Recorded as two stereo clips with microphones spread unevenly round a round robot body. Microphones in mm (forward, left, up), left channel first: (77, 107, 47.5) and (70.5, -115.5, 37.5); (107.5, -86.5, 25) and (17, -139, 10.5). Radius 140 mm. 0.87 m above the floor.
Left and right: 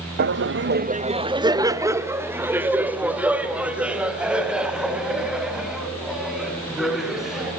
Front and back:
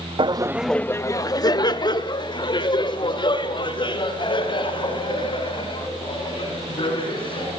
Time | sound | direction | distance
0.2 | laughter | 130° right | 0.7 m